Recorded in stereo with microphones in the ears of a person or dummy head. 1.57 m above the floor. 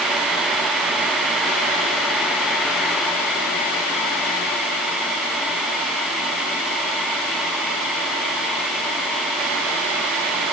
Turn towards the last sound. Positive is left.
No sound to turn to.